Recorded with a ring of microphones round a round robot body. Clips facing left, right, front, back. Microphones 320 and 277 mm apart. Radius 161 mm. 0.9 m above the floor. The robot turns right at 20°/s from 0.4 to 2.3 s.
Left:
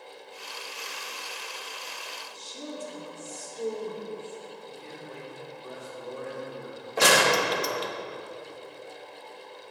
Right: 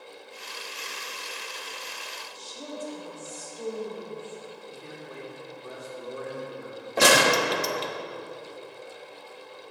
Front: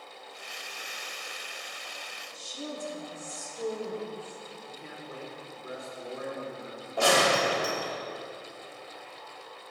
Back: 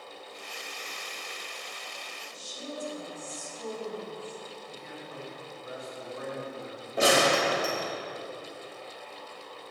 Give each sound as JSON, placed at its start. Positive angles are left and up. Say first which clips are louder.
{"t": 2.3, "sound": "a woman speaking", "louder": "even, front 1 dB", "azimuth_deg": 30, "distance_m": 2.5}
{"t": 4.7, "sound": "a man speaking", "louder": "even, even", "azimuth_deg": -20, "distance_m": 3.0}
{"t": 7.0, "sound": "a gunshot", "louder": "right 2 dB, back 1 dB", "azimuth_deg": -105, "distance_m": 0.8}